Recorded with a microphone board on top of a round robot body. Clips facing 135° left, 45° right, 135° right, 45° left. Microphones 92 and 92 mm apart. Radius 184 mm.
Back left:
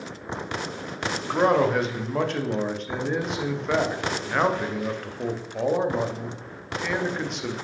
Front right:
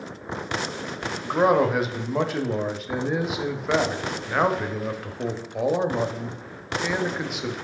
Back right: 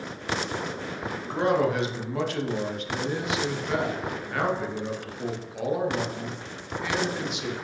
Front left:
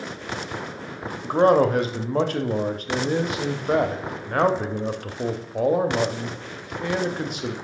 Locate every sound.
1.2 s a man speaking: 40° left, 1.0 m